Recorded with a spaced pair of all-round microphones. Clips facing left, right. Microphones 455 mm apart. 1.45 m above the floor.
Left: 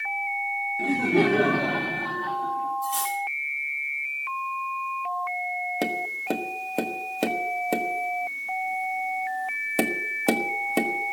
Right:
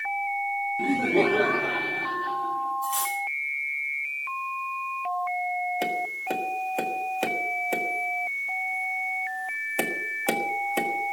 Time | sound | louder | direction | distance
0.8 | laughter | left 1 dB | 20° right (ahead or behind) | 0.6 m
2.8 | cutlery clinking | left 2 dB | 55° left (ahead or behind) | 4 m
5.8 | tapping | left 3 dB | 55° left (ahead or behind) | 1.5 m